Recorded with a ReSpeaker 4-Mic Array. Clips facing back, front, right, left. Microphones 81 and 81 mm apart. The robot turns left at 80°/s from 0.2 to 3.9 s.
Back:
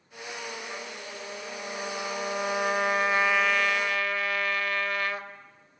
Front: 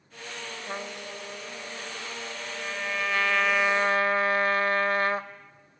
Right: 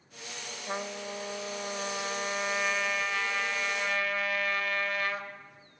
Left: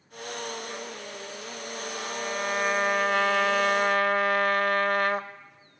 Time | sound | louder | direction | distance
0.7 | a trumpet | front 3 dB, right 2 dB | 45° right | 0.7 m